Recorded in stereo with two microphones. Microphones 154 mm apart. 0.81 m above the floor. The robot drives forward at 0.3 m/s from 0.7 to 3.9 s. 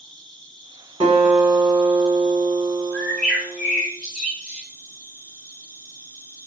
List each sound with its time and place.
0.0 s an insect: 10° left (ahead or behind), 1.3 m; by 6.5 s 15° left (ahead or behind), 0.7 m
1.0 s a guitar: 40° right (ahead or behind), 1.1 m; by 3.8 s 25° right (ahead or behind), 1.7 m
2.9 s a bird: centre (ahead or behind), 1.8 m